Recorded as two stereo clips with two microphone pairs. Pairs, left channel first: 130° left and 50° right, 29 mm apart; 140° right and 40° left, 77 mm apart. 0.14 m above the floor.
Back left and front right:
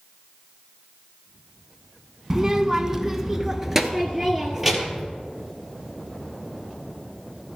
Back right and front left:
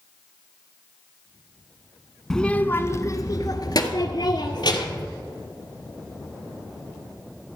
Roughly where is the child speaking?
Right.